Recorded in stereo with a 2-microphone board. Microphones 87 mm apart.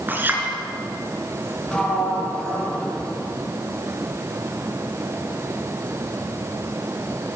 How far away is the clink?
About 4.5 m.